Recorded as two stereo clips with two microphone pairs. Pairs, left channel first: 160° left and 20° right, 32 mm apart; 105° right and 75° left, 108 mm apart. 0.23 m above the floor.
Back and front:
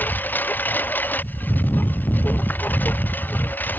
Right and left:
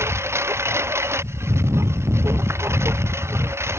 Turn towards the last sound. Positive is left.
turn(degrees=140)